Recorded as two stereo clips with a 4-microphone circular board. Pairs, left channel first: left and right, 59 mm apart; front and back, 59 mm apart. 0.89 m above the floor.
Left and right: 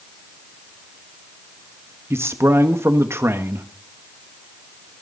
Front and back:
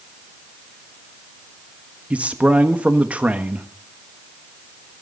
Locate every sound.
2.1 s a man speaking: 120° right, 1.5 m